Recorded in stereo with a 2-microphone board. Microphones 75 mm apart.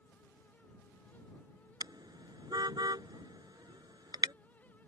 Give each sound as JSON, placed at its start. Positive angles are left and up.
{"t": 1.8, "sound": "a car horn", "side_deg": -70}